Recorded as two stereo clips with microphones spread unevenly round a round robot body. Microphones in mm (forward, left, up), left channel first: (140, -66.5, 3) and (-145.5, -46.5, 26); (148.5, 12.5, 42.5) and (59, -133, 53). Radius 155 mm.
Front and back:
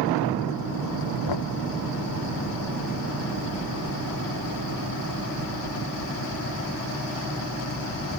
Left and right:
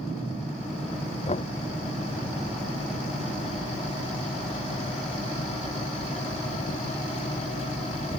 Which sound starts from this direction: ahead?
Knocking, at 1.3 s.